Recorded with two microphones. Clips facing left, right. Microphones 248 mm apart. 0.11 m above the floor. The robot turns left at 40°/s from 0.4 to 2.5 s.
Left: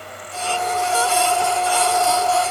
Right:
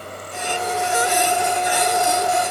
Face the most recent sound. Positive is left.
No sound to turn to.